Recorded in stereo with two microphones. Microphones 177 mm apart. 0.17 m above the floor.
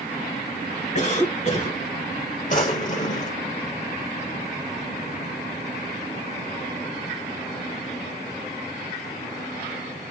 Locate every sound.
0.9 s a cough: 40° left (ahead or behind), 2.5 m
2.5 s a drawer: 45° left (ahead or behind), 1.8 m